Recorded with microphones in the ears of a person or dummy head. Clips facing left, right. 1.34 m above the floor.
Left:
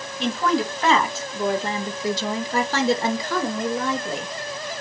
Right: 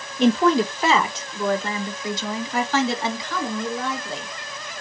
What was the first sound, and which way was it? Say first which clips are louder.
A woman speaking: right 5 dB; 35° right (ahead or behind).